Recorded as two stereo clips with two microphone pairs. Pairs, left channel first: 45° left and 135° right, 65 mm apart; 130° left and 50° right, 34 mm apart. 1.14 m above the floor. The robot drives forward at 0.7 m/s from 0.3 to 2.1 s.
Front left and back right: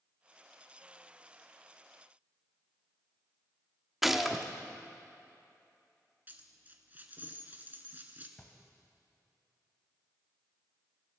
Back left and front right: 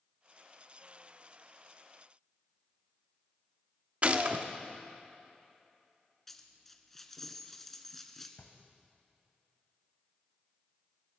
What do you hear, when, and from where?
4.0 s a gunshot: 45° right, 0.7 m
6.3 s a dropped coin: 155° right, 1.2 m
8.4 s a drawer: 115° left, 1.7 m